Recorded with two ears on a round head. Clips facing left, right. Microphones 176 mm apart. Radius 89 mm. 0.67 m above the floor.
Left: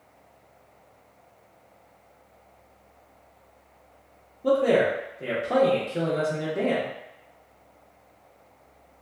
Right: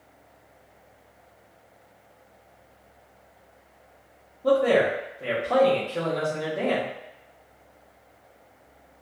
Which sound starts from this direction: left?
A man speaking, at 4.4 s.